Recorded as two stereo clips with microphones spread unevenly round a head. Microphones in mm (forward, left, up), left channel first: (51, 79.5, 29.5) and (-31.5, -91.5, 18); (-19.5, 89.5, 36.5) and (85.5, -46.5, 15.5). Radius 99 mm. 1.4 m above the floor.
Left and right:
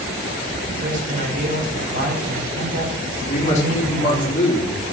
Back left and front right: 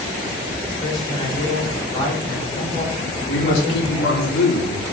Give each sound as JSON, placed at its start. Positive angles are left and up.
{"t": 0.8, "sound": "a man speaking", "azimuth_deg": -165, "distance_m": 4.5}
{"t": 3.3, "sound": "a man speaking", "azimuth_deg": 120, "distance_m": 3.5}